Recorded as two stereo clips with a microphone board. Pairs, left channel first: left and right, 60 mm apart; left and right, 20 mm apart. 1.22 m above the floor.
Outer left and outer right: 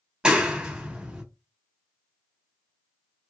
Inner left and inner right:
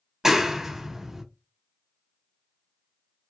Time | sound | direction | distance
0.2 | a clap | 15° right (ahead or behind) | 1.3 m